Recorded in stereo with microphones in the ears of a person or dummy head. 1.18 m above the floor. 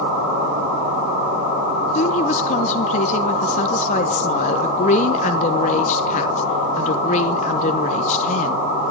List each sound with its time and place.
1.9 s a woman speaking: 45° left (ahead or behind), 1.0 m